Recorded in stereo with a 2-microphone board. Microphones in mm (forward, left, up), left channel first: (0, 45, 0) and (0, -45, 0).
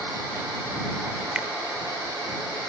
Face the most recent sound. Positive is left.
turn(degrees=-15)  # may be behind; listen again after turning